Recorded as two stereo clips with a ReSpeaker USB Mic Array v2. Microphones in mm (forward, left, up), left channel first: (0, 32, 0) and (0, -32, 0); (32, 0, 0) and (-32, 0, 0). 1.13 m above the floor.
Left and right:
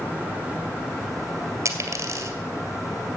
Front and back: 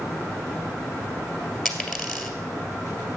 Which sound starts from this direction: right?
A dropped coin, at 1.6 s.